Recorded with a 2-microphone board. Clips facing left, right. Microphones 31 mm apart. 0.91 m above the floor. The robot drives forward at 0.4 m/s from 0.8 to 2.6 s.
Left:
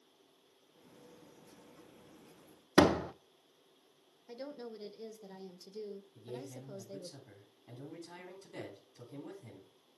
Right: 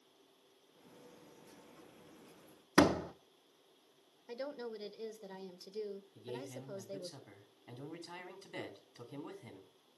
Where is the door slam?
35° left (ahead or behind), 0.5 m.